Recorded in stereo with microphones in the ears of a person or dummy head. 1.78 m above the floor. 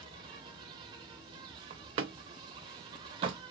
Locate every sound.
0.0 s an insect: 25° right (ahead or behind), 1.1 m
1.7 s a door slam: 20° right (ahead or behind), 0.5 m